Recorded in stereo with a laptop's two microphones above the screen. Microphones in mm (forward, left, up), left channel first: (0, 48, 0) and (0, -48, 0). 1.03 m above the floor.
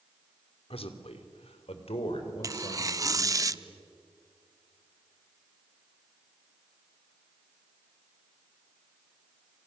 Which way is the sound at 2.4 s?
35° right (ahead or behind).